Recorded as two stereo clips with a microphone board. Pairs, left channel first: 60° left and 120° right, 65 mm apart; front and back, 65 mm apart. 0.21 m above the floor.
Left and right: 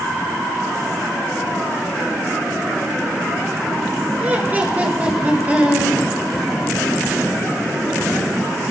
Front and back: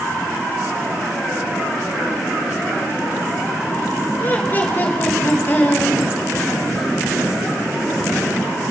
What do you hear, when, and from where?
4.2 s laughter: 60° right, 4 m; by 6.0 s 55° right, 5 m